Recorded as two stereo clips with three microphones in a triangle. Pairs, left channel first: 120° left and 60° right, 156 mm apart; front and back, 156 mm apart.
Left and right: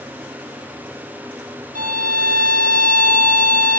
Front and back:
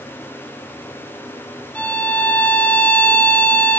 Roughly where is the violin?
Right.